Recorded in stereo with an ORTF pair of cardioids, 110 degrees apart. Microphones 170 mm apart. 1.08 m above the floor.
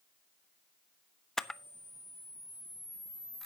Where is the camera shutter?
5° left, 0.6 m.